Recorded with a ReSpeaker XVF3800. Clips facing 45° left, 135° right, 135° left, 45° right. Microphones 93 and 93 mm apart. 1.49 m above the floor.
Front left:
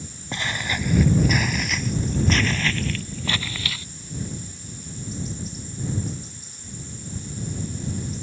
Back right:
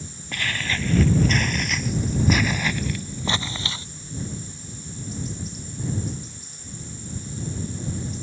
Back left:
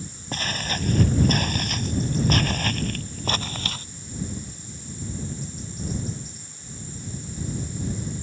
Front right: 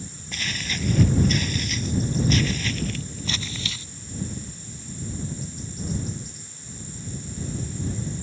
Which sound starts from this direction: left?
Footsteps, at 0.3 s.